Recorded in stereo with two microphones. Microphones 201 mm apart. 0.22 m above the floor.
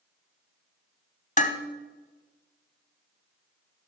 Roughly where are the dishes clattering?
Left.